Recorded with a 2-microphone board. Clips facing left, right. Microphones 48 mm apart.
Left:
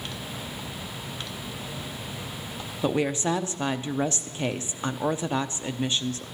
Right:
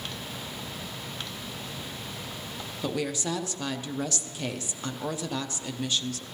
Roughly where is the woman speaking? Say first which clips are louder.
Left 6 dB; left.